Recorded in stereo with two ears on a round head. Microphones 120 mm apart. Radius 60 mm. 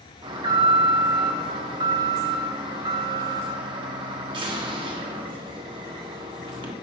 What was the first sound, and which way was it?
An alarm, 35° right (ahead or behind).